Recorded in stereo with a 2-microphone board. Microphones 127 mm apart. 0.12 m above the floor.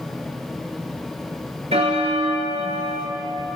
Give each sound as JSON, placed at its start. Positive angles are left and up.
{"t": 1.7, "sound": "a bell", "side_deg": -55, "distance_m": 0.7}